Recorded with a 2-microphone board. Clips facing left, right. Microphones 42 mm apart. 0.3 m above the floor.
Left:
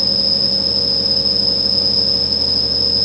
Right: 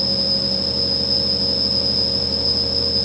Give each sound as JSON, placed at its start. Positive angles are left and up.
{"t": 0.0, "sound": "an insect", "side_deg": -10, "distance_m": 7.5}